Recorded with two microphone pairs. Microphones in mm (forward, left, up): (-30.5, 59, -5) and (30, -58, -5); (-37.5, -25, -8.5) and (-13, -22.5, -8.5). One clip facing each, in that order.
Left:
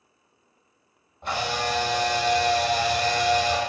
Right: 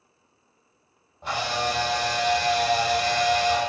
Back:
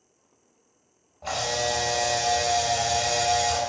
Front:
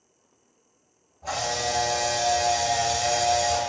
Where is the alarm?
No alarm in this recording.